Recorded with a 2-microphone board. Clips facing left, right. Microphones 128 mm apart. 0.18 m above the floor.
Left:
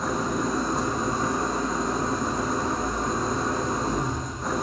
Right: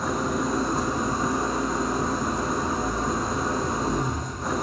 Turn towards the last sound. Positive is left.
turn(degrees=0)  # may be behind; listen again after turning